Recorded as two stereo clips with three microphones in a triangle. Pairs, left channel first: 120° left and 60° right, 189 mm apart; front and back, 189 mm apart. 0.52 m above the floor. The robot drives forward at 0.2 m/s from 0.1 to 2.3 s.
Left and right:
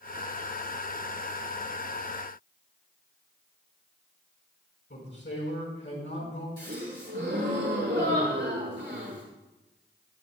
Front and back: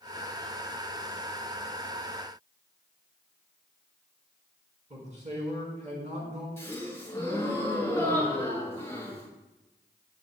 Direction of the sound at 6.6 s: 75° right.